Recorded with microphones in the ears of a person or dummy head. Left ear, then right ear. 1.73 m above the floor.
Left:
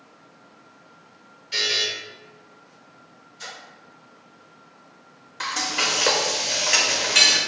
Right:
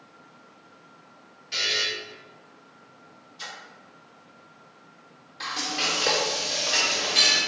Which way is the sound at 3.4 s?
50° right (ahead or behind).